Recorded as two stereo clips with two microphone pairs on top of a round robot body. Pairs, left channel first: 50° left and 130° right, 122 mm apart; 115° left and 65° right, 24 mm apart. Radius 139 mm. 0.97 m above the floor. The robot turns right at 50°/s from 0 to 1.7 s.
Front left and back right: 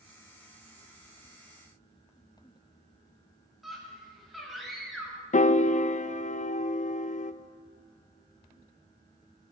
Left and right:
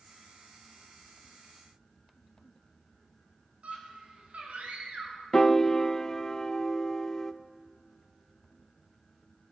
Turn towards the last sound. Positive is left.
turn(degrees=50)